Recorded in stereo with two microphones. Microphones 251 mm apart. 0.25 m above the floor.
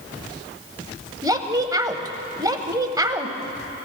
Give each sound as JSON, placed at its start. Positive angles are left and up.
{"t": 1.2, "sound": "a woman speaking", "side_deg": -15, "distance_m": 0.9}